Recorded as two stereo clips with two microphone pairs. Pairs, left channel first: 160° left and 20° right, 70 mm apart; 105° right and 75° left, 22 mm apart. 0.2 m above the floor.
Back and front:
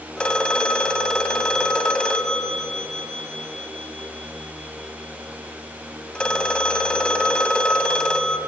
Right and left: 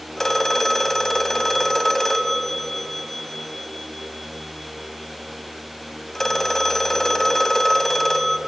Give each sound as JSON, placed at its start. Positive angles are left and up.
{"t": 0.2, "sound": "a phone ringing", "azimuth_deg": -145, "distance_m": 0.6}